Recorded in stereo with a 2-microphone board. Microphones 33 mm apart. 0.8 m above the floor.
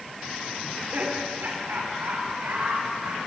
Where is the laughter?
65° right (ahead or behind), 2.5 m; by 3.2 s 80° right, 4 m.